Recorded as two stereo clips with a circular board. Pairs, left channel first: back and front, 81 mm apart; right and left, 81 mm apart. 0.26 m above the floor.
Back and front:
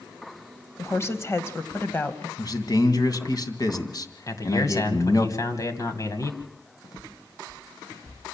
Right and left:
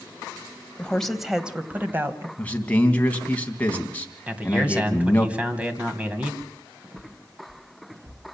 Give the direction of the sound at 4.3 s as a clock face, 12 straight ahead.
7 o'clock.